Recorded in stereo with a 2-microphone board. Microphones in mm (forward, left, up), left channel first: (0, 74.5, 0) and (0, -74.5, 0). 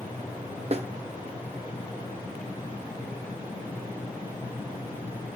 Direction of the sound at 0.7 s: 45° right (ahead or behind).